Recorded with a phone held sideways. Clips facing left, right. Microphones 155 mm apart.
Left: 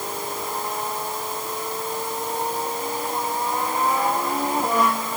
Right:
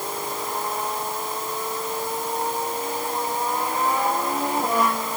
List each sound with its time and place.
Only background noise.